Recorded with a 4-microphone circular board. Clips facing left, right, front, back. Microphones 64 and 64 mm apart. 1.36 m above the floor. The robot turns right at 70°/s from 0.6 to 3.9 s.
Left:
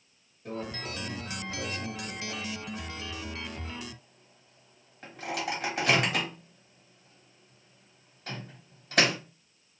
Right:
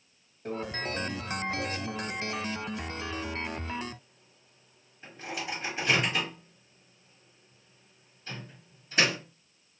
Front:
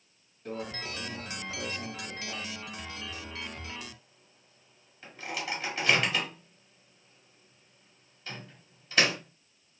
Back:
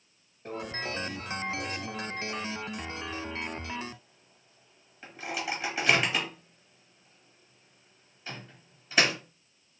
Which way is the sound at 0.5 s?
125° right.